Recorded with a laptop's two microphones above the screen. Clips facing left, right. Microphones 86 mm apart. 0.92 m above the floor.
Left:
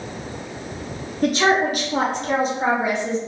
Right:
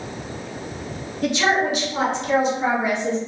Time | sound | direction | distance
1.2 | a woman speaking | 40° left (ahead or behind) | 1.2 m